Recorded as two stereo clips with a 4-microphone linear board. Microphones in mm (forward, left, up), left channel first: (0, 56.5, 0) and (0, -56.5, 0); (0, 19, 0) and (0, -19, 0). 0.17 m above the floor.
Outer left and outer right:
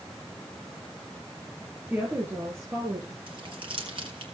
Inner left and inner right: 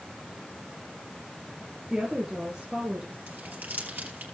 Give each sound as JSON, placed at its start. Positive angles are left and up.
{"t": 1.9, "sound": "a woman speaking", "side_deg": -15, "distance_m": 3.0}
{"t": 3.3, "sound": "crumpling", "side_deg": -50, "distance_m": 3.5}